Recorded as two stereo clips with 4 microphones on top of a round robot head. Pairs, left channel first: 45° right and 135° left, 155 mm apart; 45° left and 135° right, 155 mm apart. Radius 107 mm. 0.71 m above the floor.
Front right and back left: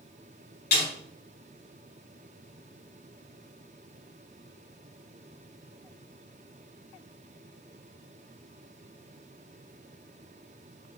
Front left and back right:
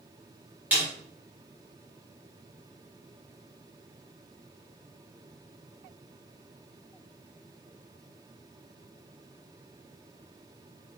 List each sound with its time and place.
0.7 s a snare drum: 55° right, 4 m